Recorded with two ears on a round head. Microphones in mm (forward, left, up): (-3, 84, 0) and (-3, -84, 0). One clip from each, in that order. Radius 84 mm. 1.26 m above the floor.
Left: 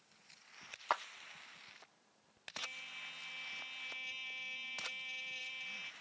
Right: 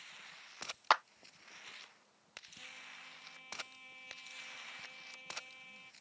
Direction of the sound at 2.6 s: 85° left.